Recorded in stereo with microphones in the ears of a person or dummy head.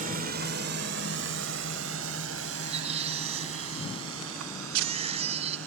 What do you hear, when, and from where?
0.0 s a drone: 50° right (ahead or behind); by 5.7 s 80° right
2.5 s a baby crying: 40° right (ahead or behind)